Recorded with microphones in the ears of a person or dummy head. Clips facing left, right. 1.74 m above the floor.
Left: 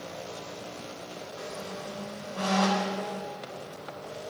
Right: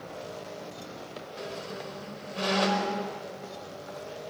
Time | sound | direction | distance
1.4 | a squeak | 35° right (ahead or behind) | 4.5 m